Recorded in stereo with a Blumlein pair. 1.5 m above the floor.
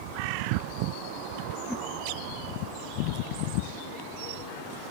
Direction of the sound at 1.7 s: 5° left.